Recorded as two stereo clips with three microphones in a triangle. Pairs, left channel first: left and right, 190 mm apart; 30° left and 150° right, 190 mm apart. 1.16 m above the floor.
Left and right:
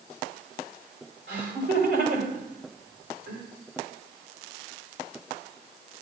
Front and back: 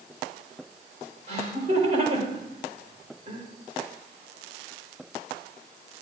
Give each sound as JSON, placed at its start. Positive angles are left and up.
{"t": 1.3, "sound": "laughter", "azimuth_deg": -95, "distance_m": 3.5}